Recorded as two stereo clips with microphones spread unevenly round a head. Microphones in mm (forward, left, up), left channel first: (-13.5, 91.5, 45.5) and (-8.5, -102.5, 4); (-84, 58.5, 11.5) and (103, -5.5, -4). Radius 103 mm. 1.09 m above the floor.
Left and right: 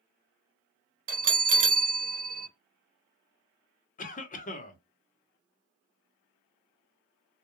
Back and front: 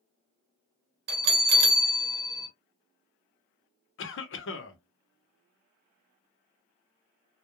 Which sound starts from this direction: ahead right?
A bell, at 1.1 s.